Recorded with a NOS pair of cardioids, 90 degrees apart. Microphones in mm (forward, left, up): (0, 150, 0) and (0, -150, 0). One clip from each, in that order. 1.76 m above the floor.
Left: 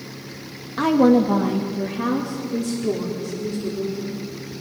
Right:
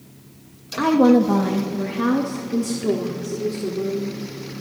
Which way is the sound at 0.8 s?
5° left.